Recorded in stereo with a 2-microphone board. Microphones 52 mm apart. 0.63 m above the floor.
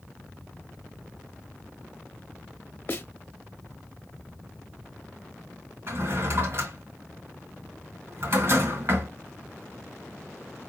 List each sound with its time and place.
2.9 s a snare drum: 40° left (ahead or behind), 0.6 m
5.9 s a drawer: 60° right (ahead or behind), 1.9 m